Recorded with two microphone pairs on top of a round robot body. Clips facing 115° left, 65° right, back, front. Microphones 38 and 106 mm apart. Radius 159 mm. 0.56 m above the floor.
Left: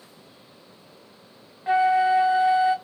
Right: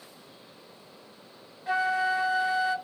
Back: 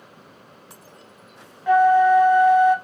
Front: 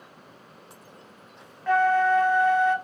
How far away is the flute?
About 0.7 m.